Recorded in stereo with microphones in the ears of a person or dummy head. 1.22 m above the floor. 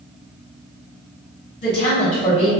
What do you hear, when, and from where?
1.6 s a woman speaking: 30° left (ahead or behind), 1.3 m